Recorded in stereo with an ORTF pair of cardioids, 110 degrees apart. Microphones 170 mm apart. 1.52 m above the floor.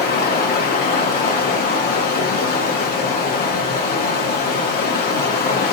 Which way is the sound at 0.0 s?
65° left.